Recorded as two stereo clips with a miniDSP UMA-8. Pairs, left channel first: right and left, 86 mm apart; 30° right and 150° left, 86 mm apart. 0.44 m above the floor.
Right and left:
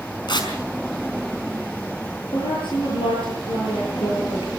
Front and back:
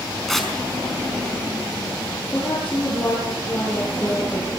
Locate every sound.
0.3 s tearing paper: 115° right, 5 m
2.3 s a woman speaking: 100° right, 10 m